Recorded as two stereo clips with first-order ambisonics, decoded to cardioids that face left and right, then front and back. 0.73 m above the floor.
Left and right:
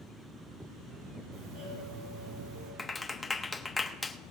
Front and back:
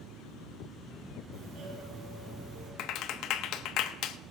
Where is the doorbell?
130° right, 9 m.